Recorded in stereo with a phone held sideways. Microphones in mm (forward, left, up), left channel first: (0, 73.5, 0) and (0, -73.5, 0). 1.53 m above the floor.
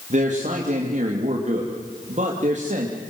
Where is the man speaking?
55° right (ahead or behind), 3 m.